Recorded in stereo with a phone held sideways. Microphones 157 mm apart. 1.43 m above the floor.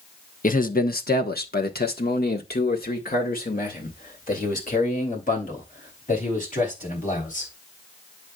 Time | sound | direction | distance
0.4 | a man speaking | 60° left (ahead or behind) | 0.9 m